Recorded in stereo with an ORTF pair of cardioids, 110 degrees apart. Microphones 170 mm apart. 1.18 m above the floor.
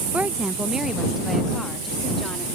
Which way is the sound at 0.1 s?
10° right.